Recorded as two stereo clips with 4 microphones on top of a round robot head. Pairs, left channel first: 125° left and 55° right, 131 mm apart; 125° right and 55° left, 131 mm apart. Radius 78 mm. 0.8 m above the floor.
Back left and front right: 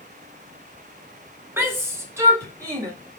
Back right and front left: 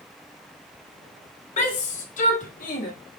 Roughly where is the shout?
Behind right.